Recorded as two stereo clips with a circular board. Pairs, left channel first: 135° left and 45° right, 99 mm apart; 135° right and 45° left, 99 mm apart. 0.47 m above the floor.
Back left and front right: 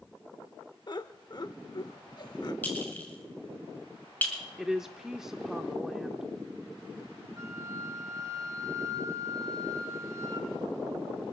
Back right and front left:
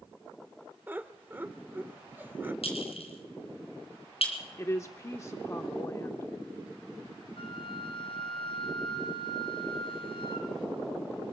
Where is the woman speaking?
125° right, 0.7 m.